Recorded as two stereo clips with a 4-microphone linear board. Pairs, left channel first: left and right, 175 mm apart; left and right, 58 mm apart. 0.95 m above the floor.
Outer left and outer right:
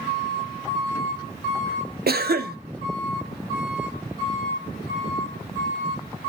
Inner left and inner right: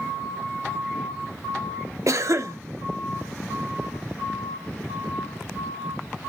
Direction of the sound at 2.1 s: 65° right (ahead or behind).